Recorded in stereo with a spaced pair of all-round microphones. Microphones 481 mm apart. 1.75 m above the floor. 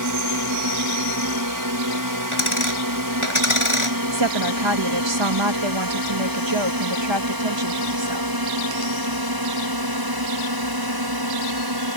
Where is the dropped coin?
75° left (ahead or behind).